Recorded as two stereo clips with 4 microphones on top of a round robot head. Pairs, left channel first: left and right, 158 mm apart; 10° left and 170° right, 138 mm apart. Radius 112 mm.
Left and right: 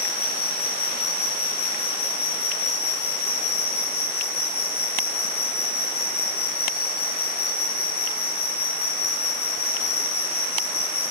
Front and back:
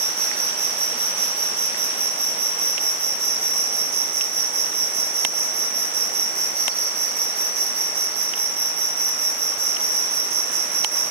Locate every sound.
0.0 s an insect: 150° left, 2.5 m